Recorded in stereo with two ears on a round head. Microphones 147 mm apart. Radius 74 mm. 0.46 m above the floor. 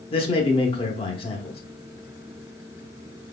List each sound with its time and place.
0.1 s a man speaking: 35° left (ahead or behind), 1.0 m